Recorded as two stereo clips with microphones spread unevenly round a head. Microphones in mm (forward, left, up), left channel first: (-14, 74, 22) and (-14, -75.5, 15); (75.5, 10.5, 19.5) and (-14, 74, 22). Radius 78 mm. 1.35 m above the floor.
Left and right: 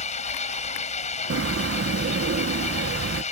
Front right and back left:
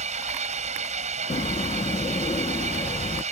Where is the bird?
85° right.